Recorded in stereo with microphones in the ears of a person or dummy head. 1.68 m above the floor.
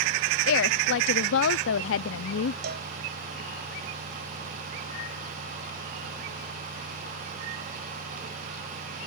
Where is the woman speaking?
85° left.